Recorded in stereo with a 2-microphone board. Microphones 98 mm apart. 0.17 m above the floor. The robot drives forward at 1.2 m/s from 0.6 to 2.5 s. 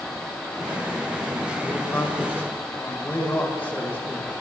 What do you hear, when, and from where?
1.6 s a man speaking: 20° left (ahead or behind), 7 m